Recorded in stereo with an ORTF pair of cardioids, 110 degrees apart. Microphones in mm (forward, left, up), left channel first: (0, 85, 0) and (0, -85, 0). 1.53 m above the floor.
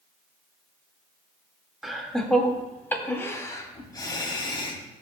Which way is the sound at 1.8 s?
Straight ahead.